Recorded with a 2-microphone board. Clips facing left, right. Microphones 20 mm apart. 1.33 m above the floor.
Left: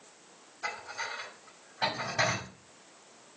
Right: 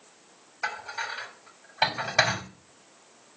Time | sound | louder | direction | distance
0.6 | dishes clattering | right 5 dB | 60° right (ahead or behind) | 2.5 m